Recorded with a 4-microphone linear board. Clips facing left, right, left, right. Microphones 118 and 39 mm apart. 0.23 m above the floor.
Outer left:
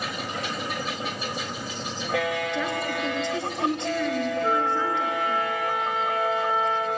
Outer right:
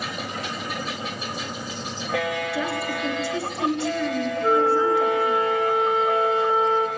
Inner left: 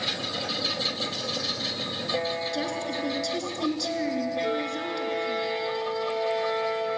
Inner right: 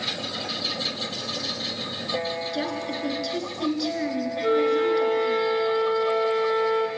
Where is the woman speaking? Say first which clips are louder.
Outer right 1 dB, inner right 1 dB; 10° right (ahead or behind), 3.5 m.